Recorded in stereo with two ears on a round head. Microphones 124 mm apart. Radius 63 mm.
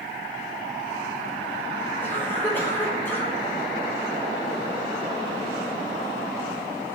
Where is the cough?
15° left (ahead or behind), 6.5 m.